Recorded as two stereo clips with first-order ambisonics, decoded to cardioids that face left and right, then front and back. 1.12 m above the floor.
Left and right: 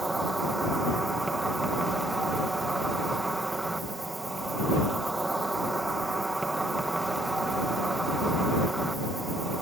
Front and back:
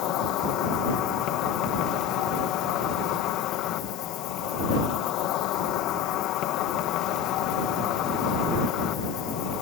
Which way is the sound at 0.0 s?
10° right.